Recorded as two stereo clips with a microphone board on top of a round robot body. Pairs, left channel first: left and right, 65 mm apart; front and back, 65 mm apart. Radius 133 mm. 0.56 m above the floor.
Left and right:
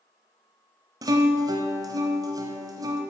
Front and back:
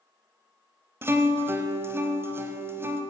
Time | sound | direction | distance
1.0 | a guitar | 125° right | 0.8 m